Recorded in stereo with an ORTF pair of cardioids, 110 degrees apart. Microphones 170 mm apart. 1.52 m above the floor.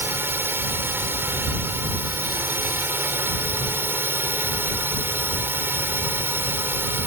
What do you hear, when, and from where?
0.0 s a drone: 15° right